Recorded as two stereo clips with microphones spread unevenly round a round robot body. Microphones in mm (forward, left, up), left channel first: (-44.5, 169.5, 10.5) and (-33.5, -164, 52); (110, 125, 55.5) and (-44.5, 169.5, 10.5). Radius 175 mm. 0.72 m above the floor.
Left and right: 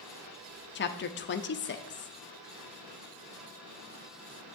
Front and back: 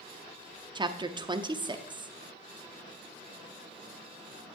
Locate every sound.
0.8 s a woman speaking: 130° left, 0.7 m